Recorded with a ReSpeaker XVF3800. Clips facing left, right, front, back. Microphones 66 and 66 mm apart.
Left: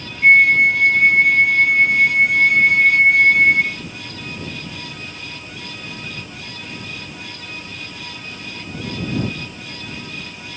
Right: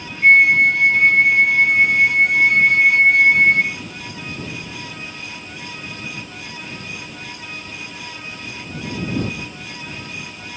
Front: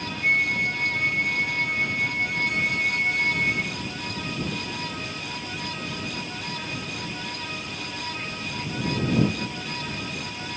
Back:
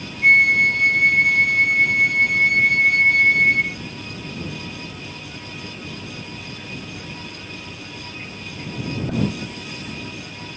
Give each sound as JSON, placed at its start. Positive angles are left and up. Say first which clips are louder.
{"t": 0.2, "sound": "a flute", "louder": "even, back 9 dB", "azimuth_deg": 180}